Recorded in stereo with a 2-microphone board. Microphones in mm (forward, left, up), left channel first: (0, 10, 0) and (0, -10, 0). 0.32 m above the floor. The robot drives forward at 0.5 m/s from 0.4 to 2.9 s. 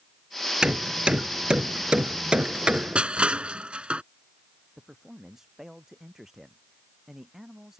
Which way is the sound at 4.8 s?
25° right (ahead or behind).